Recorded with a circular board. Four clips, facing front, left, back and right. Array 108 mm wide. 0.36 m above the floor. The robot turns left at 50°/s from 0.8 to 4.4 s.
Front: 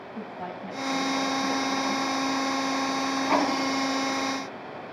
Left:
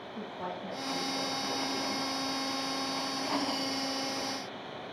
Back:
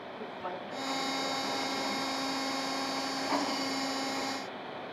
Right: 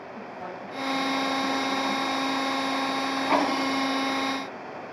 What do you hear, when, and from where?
0.1 s a woman speaking: 5° right, 9 m; by 2.1 s 70° right, 9 m